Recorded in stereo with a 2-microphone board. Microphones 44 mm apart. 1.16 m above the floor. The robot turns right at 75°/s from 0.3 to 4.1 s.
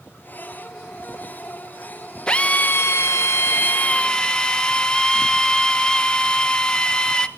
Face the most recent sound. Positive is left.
turn(degrees=160)